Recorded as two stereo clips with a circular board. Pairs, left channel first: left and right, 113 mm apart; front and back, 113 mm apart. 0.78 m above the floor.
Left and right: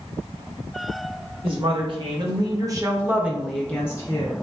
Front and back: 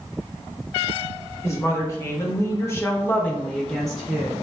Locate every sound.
1.4 s a woman speaking: 60° right, 1.3 m; by 4.3 s 100° left, 0.7 m